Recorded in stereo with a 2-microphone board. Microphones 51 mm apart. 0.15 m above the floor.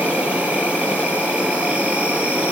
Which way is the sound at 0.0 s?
25° right (ahead or behind).